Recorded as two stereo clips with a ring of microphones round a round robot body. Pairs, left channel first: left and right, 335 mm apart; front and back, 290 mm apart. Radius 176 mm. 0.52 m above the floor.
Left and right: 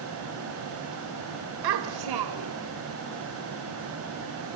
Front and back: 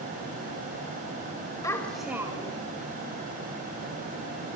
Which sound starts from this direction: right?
A child speaking, at 1.6 s.